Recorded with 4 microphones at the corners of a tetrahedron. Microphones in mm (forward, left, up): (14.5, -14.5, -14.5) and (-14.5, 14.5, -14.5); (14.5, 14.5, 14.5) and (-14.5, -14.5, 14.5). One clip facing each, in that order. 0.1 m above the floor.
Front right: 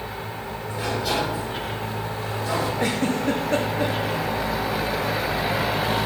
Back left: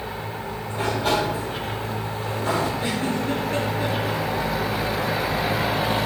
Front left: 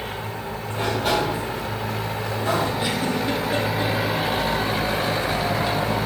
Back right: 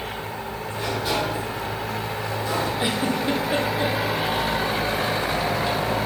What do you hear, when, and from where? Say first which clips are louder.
0.7 s a sliding door: back left 3 dB, front left 4 dB; 80° left, 4.5 m
2.8 s a giggle: front right 2 dB, even; 65° right, 2 m